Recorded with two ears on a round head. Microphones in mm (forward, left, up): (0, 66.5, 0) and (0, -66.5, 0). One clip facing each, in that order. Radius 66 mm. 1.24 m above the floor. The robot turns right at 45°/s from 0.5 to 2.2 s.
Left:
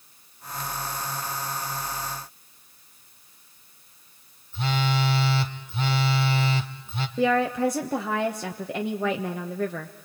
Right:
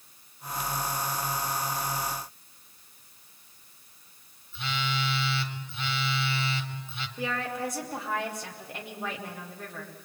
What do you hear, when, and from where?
4.5 s a phone buzzing: 35° left (ahead or behind), 1.2 m
7.2 s a woman speaking: 60° left (ahead or behind), 1.3 m